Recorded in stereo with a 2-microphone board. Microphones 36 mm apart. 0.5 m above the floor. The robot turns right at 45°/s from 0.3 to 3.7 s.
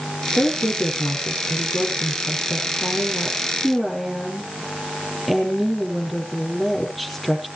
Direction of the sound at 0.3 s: 30° left.